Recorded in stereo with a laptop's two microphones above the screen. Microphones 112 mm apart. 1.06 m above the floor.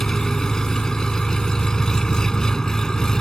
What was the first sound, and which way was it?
An engine running, 5° left (ahead or behind).